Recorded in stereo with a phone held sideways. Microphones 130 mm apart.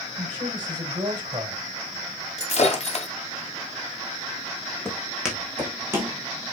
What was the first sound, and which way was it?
A man speaking, 35° right (ahead or behind).